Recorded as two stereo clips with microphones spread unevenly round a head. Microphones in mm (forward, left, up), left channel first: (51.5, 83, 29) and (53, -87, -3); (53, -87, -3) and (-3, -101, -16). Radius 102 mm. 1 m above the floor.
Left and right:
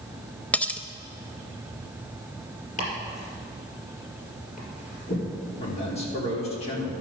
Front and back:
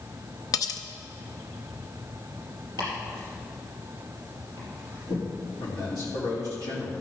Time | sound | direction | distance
0.5 | cutlery clinking | 10° left | 0.7 m
2.8 | chopping | 45° left | 4.5 m
5.6 | a man speaking | 35° left | 3 m